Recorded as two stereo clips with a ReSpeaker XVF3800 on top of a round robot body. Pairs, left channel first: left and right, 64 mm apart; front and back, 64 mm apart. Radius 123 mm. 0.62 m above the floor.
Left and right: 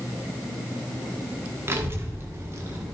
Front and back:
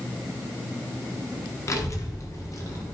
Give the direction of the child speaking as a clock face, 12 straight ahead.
1 o'clock.